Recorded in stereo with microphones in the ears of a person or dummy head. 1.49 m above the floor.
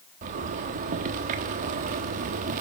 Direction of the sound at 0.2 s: 40° right (ahead or behind).